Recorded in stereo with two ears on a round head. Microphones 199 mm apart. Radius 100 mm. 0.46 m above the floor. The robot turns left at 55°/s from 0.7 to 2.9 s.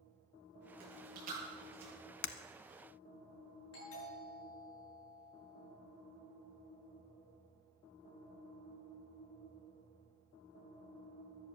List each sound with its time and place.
0.8 s chewing: 65° right (ahead or behind), 10 m; by 1.9 s 5° right (ahead or behind), 10 m
2.2 s breaking glass: 85° left, 1.1 m
3.7 s a doorbell: 70° left (ahead or behind), 10 m